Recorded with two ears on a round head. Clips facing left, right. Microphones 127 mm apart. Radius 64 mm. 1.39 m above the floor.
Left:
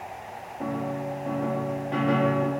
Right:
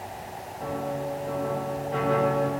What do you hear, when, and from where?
0.6 s a piano: 85° left, 3 m